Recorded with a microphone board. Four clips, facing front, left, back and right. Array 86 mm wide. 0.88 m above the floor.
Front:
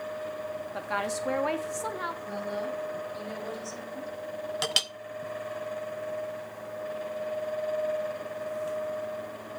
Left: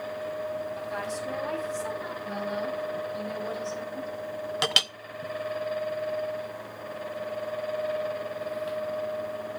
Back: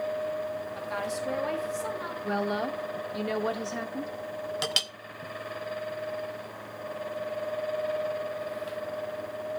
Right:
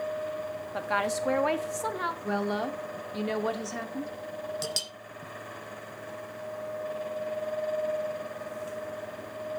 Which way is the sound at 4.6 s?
85° left.